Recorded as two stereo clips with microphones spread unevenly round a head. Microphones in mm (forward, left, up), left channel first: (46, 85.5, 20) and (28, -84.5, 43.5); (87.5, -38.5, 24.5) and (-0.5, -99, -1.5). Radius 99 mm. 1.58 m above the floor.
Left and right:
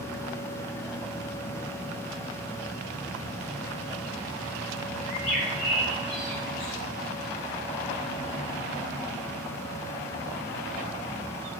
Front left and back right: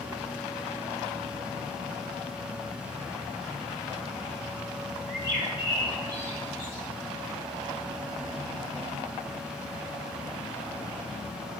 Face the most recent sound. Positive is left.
turn(degrees=140)